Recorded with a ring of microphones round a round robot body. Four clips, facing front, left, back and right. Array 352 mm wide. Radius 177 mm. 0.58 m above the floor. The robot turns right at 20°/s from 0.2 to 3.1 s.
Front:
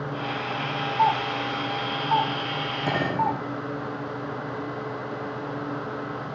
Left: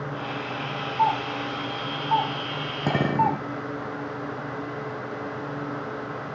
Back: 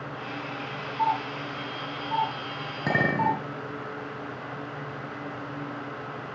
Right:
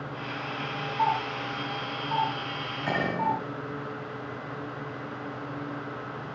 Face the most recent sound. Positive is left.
turn(degrees=100)